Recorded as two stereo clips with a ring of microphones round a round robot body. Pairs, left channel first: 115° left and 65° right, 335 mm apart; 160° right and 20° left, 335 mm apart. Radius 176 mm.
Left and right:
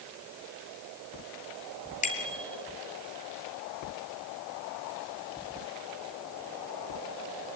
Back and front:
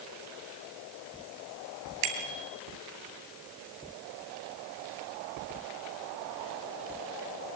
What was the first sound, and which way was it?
A bicycle bell, 45° left.